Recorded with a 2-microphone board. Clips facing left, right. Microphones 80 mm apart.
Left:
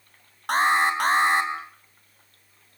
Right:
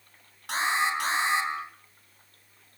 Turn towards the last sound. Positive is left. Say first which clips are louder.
# left 6 dB
turn(degrees=55)  # may be behind; listen again after turning